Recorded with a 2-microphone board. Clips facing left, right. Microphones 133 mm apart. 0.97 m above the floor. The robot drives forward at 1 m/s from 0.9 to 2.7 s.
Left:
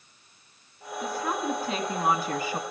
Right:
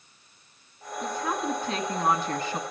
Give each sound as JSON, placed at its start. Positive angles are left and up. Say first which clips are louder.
{"t": 1.0, "sound": "a woman speaking", "louder": "even", "side_deg": 5, "distance_m": 3.0}